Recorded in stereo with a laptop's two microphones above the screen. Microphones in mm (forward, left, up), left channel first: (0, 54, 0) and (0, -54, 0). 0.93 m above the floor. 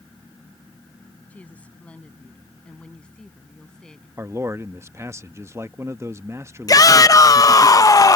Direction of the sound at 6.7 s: 35° left (ahead or behind).